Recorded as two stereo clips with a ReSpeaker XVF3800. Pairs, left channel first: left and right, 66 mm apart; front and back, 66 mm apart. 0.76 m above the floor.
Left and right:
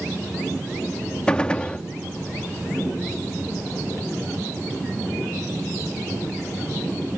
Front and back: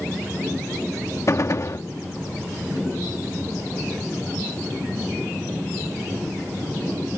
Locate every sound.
1.3 s a gunshot: 20° left